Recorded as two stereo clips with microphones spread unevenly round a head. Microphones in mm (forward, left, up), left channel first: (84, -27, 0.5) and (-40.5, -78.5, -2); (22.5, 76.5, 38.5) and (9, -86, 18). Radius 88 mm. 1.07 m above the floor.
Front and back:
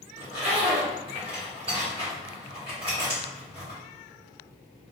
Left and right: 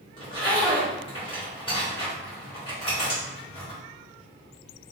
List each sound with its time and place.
0.2 s a zipper: 145° left, 1.1 m